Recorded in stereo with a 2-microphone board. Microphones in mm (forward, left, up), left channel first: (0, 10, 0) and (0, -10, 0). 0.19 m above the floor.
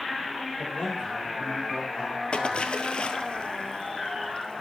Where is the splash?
65° left (ahead or behind), 1.3 m.